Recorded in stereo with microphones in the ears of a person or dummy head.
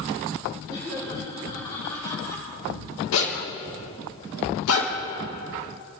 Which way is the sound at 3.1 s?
80° left.